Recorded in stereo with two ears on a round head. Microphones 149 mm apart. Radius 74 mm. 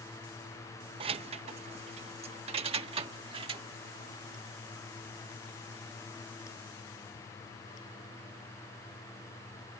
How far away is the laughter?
I don't hear laughter.